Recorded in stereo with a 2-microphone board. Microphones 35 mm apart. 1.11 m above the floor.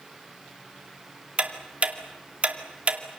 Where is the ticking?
35° right (ahead or behind), 2 m.